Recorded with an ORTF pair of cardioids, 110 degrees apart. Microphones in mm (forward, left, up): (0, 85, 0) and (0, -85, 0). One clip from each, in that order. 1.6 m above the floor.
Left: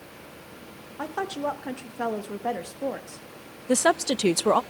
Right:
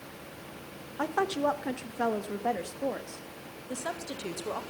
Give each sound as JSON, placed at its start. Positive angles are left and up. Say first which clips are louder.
{"t": 1.0, "sound": "a woman speaking", "louder": "right 1 dB", "azimuth_deg": -15, "distance_m": 2.0}
{"t": 3.7, "sound": "a woman speaking", "louder": "left 15 dB", "azimuth_deg": 70, "distance_m": 0.7}